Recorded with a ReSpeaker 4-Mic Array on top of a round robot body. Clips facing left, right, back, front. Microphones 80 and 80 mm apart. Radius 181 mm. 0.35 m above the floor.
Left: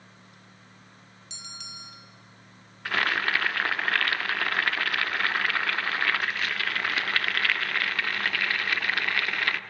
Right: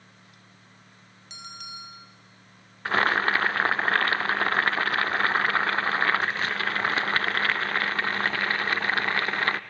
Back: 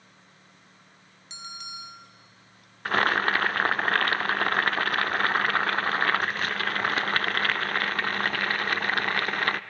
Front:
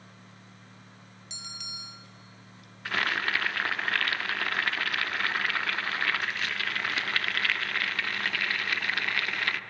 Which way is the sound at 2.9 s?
140° right.